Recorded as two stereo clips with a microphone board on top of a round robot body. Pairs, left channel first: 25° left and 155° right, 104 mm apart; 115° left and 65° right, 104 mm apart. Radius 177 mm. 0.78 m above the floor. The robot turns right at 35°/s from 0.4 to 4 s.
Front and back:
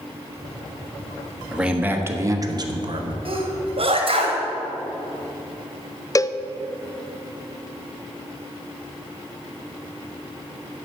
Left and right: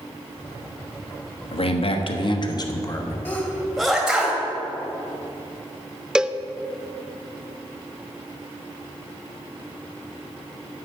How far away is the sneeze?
About 2 m.